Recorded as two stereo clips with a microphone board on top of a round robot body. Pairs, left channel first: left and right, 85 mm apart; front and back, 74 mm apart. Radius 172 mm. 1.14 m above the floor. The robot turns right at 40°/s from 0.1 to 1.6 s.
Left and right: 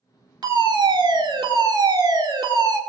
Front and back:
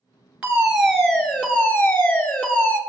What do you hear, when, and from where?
0.4 s a fire alarm: 110° right, 2.5 m; by 2.8 s 60° right, 2.5 m